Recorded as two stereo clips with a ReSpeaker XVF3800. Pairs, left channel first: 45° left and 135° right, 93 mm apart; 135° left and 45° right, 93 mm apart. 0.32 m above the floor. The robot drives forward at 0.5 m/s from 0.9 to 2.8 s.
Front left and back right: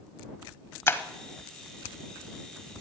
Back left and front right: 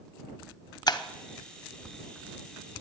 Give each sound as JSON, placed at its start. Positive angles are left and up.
{"t": 0.9, "sound": "breaking glass", "azimuth_deg": 105, "distance_m": 0.8}